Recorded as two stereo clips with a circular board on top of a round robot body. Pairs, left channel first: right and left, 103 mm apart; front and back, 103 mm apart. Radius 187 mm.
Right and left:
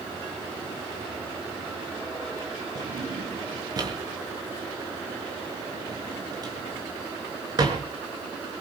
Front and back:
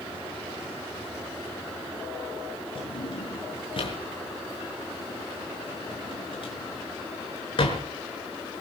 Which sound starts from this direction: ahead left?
A drawer, at 2.8 s.